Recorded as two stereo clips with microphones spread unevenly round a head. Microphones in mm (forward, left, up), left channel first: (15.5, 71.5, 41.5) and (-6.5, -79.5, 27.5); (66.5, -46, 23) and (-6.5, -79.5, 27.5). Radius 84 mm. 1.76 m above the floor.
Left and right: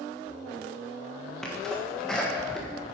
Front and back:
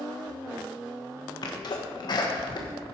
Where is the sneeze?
Straight ahead, 1.5 m.